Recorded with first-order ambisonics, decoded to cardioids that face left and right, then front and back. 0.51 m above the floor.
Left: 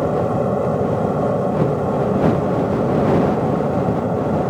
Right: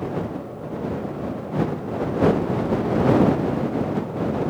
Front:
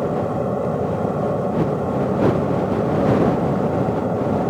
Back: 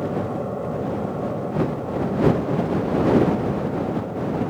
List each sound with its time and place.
0.0 s an aircraft: 70° left; by 4.5 s 50° left